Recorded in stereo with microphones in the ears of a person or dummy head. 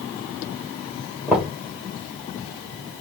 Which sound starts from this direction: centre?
Knocking, at 1.3 s.